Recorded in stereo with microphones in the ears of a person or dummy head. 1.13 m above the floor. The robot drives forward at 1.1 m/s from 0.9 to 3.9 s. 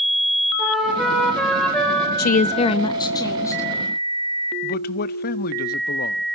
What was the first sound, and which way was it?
A flute, 5° right (ahead or behind).